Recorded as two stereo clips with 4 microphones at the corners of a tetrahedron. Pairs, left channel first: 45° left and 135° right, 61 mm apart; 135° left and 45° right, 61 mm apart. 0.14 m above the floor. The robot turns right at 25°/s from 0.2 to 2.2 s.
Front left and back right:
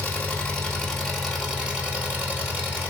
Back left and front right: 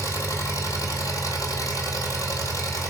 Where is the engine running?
110° left, 1.3 m; by 2.9 s 160° left, 1.3 m.